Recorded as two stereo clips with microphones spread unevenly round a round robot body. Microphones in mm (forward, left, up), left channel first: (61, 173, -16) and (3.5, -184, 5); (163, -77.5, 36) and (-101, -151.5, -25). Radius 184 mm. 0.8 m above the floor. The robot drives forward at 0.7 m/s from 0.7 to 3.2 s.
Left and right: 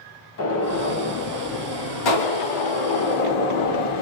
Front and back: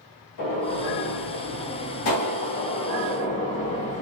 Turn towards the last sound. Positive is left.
turn(degrees=80)